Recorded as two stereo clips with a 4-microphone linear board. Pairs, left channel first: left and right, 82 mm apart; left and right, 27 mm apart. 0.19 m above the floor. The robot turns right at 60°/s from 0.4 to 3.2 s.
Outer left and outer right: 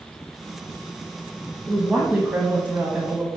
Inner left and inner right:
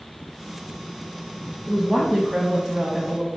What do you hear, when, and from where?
1.7 s a woman speaking: 5° right (ahead or behind), 1.3 m; by 3.3 s 20° right (ahead or behind), 1.3 m